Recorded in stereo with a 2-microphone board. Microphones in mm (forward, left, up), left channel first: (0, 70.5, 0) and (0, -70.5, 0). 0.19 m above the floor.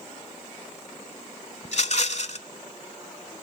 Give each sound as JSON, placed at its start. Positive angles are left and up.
{"t": 1.6, "sound": "a rattle", "side_deg": 55, "distance_m": 0.7}